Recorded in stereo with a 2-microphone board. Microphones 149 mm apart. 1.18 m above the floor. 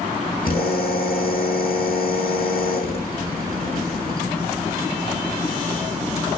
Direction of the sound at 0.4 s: 85° left.